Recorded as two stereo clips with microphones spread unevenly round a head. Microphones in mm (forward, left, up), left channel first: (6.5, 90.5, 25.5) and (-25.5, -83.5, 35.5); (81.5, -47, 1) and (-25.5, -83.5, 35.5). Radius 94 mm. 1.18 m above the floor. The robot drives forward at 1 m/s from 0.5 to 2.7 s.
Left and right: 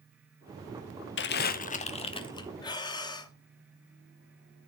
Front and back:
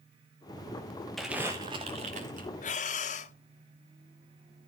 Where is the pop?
I don't hear a pop.